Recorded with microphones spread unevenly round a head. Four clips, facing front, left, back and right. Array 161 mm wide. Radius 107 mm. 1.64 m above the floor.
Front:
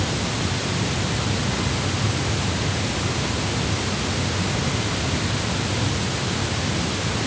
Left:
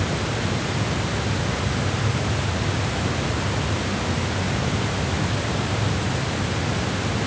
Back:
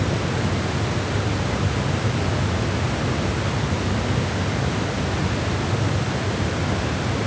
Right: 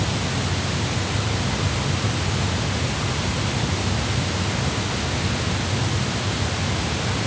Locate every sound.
Only background noise.